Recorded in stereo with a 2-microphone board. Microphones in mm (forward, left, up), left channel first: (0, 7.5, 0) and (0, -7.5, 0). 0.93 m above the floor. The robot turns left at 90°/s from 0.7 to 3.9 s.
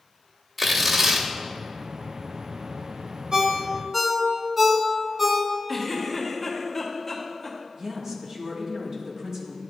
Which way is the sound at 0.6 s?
5° left.